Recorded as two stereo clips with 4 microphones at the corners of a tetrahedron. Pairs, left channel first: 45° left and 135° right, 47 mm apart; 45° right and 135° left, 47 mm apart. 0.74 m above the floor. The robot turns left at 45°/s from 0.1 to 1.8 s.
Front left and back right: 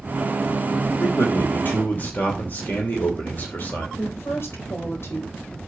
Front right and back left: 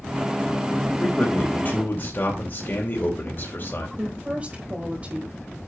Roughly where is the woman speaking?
Left.